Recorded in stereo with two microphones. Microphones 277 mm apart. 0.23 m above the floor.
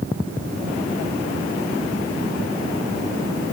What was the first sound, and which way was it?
Only background noise.